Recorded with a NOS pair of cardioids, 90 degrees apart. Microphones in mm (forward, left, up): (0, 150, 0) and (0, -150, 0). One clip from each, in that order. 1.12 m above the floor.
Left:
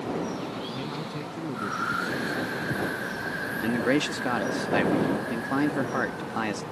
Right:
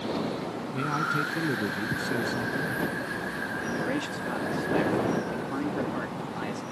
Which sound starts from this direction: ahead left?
A man speaking, at 3.6 s.